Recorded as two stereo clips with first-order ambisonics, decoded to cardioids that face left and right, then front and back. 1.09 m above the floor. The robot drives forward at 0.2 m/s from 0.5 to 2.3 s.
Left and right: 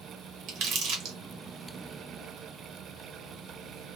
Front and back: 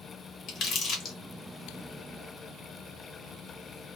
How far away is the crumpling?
About 1.0 m.